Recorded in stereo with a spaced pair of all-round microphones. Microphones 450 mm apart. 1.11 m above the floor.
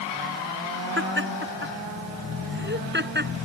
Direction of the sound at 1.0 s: 25° right (ahead or behind).